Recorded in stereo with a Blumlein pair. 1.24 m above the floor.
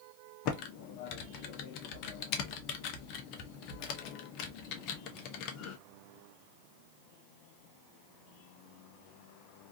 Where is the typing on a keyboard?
40° left, 0.6 m.